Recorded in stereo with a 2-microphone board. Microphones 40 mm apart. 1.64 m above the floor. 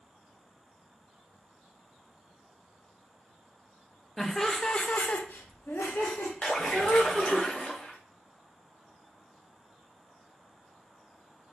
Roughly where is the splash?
Left.